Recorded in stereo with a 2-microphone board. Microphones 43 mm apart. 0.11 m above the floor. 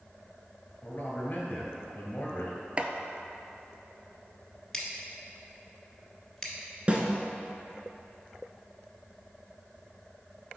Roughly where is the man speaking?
Left.